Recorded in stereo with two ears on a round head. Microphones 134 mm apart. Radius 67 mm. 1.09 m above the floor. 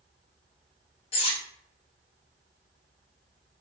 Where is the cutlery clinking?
40° left (ahead or behind), 0.6 m.